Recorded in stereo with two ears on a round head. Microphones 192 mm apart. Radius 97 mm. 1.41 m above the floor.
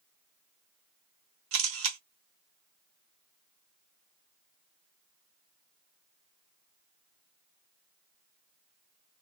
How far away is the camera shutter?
About 1.0 m.